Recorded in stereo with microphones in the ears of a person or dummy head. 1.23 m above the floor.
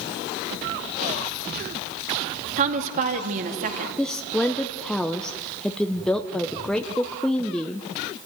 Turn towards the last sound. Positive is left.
turn(degrees=5)  # may be behind; listen again after turning